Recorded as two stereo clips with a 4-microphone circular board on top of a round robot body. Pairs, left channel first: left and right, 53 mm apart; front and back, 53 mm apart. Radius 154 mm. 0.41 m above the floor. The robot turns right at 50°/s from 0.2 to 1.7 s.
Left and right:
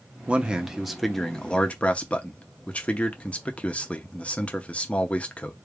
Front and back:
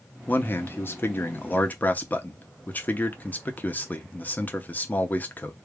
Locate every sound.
0.3 s a man speaking: 35° right, 0.9 m; by 5.6 s 40° left, 0.9 m